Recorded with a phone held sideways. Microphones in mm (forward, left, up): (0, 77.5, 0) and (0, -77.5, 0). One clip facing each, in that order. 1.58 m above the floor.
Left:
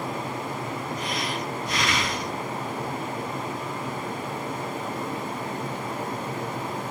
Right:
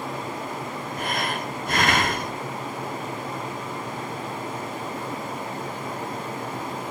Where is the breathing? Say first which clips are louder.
Right 1 dB; 55° right (ahead or behind), 0.7 m.